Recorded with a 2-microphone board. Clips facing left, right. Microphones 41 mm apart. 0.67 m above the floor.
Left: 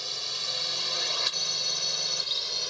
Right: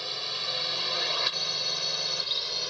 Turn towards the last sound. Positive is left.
turn(degrees=-5)  # may be behind; listen again after turning